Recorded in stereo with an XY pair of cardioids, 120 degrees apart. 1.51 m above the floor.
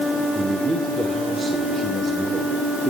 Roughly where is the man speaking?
Ahead.